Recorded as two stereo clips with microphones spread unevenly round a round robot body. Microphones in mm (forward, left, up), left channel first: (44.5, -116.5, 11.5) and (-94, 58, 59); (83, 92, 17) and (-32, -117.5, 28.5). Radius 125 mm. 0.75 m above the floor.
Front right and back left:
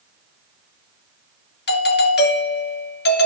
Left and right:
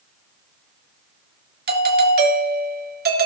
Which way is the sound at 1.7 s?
70° right.